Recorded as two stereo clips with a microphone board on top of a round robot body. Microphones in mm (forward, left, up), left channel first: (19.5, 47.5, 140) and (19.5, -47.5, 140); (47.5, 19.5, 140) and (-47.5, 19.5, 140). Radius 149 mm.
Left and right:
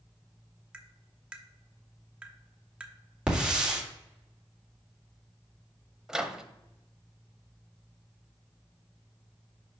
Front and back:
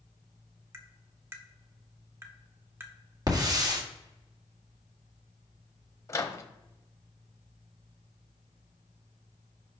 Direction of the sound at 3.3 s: 165° right.